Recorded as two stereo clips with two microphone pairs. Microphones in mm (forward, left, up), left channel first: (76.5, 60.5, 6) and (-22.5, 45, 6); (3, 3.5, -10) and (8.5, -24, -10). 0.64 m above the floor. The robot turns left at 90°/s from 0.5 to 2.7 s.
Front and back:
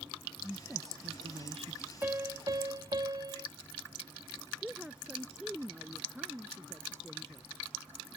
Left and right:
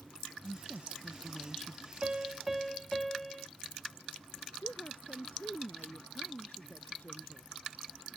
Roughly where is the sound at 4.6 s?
Left.